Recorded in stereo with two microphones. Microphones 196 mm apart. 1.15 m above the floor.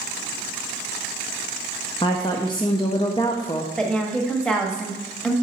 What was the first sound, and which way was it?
A woman speaking, 25° left (ahead or behind).